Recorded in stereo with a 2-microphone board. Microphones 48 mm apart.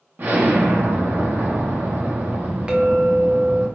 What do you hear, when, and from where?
0.2 s an explosion: 40° right (ahead or behind), 0.7 m
2.7 s a clink: 20° right (ahead or behind), 0.5 m